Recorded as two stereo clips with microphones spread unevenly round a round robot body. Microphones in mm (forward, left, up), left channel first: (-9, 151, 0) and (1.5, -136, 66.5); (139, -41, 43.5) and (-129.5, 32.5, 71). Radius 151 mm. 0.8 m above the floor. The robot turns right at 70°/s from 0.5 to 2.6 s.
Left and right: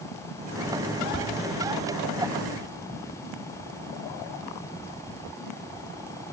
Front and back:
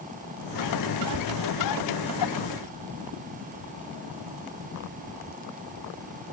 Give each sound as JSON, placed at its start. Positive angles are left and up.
{"t": 1.1, "sound": "tapping", "azimuth_deg": 155, "distance_m": 1.4}